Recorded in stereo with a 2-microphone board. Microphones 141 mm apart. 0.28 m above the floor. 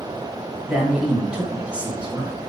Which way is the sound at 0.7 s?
10° right (ahead or behind).